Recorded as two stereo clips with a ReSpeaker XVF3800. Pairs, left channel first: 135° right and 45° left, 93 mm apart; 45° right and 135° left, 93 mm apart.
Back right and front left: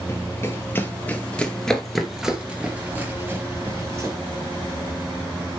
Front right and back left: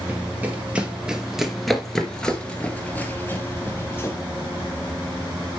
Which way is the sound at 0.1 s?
170° right.